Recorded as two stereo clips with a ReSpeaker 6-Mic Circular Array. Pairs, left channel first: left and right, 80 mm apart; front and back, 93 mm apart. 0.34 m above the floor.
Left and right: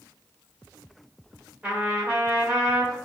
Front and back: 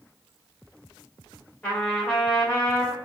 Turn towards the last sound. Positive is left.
turn(degrees=-35)